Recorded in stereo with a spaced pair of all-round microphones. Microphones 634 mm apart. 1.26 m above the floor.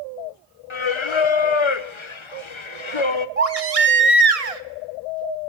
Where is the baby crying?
60° right (ahead or behind), 1.2 m.